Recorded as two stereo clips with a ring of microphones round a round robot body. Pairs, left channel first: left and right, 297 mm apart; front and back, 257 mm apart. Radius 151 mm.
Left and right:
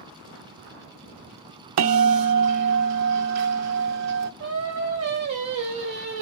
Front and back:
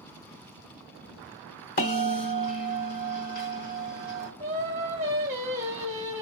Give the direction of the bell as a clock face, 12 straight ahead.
2 o'clock.